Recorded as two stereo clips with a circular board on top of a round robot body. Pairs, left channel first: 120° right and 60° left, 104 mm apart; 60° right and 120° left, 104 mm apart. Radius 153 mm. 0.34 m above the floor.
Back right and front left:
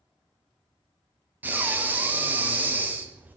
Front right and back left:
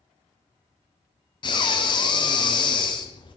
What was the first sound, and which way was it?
Breathing, 15° right.